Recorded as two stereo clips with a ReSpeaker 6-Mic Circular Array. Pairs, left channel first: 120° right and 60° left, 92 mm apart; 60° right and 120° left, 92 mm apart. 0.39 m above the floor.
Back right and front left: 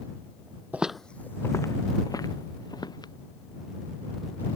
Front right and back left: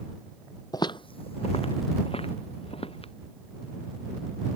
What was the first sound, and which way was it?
Footsteps, 15° right.